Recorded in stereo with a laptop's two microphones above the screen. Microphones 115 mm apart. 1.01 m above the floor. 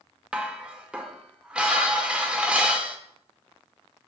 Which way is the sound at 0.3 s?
10° right (ahead or behind).